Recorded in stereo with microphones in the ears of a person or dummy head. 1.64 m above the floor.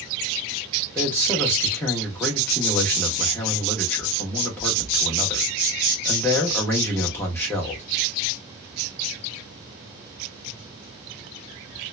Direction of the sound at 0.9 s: 10° left (ahead or behind).